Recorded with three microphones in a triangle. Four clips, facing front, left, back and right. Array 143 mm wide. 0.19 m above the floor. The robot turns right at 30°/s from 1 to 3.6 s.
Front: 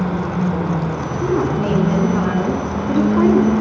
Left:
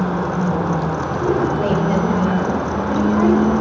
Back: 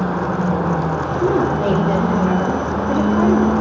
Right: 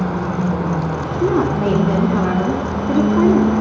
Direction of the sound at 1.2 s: 85° right.